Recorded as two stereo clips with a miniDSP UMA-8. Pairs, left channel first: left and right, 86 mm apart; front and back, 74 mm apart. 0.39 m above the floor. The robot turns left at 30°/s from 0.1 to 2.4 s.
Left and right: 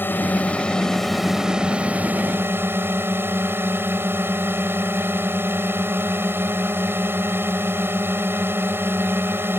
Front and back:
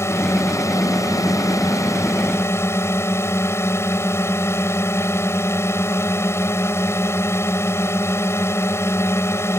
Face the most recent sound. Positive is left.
turn(degrees=-35)